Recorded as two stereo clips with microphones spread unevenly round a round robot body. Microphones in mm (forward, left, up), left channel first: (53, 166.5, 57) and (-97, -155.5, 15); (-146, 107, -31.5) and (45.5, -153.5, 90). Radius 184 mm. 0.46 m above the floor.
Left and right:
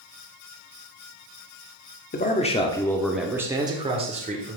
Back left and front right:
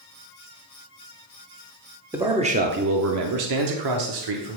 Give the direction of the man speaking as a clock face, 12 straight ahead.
9 o'clock.